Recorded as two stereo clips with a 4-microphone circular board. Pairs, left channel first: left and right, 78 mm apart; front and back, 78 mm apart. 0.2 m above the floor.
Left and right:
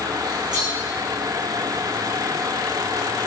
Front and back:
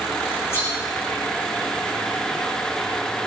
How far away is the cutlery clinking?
About 9 m.